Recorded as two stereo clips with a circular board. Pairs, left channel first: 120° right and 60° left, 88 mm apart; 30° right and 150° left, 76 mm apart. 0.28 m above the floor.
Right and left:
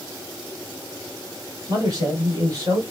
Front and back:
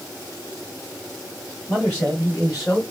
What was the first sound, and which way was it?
A man speaking, 40° left.